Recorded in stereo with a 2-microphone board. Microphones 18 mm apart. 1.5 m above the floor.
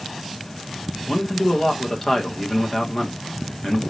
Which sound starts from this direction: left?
A man speaking, at 1.1 s.